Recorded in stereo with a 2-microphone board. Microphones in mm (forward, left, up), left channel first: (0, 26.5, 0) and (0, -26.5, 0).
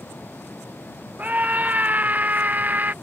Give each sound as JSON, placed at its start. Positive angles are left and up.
{"t": 1.2, "sound": "a scream", "side_deg": -30}